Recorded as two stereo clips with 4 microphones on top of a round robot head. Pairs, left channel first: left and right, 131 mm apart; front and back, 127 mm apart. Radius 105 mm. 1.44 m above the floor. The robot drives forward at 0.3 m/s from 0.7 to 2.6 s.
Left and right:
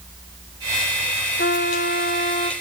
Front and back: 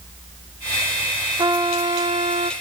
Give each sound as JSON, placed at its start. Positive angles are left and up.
{"t": 1.4, "sound": "a trumpet", "azimuth_deg": 125, "distance_m": 0.9}